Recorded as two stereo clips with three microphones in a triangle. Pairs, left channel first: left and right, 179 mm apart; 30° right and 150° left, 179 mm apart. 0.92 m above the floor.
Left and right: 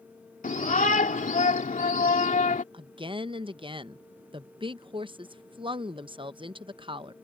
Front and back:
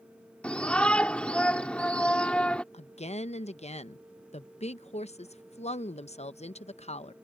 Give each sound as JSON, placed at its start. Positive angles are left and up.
{"t": 0.4, "sound": "a shout", "azimuth_deg": 55}
{"t": 2.7, "sound": "a woman speaking", "azimuth_deg": -45}